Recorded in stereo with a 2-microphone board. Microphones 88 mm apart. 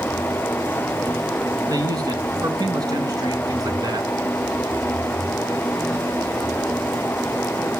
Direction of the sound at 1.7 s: 45° right (ahead or behind).